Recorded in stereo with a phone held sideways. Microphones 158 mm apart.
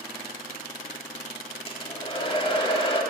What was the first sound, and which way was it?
A hair dryer, 35° left (ahead or behind).